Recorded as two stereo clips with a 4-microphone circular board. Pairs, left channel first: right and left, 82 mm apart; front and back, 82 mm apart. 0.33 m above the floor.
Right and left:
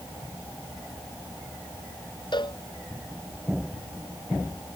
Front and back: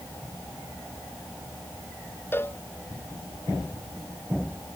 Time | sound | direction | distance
2.3 | a cowbell | 65° right | ?